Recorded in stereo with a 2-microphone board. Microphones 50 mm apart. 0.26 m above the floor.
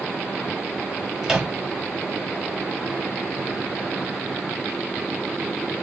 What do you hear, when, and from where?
1.2 s a microwave: 10° right (ahead or behind), 0.7 m